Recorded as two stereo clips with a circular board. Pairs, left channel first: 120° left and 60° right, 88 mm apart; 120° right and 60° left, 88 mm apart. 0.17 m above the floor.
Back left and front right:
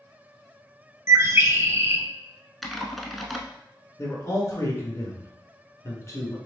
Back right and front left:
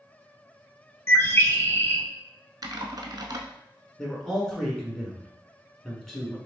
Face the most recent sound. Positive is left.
turn(degrees=155)